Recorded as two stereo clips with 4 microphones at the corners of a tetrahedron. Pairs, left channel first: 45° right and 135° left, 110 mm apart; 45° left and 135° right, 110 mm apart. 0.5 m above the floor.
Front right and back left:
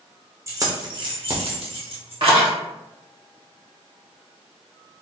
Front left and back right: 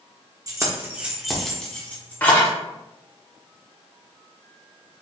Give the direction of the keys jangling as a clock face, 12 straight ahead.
6 o'clock.